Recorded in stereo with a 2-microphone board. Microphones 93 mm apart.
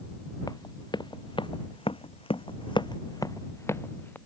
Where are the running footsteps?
45° left (ahead or behind); by 4.2 s 20° left (ahead or behind).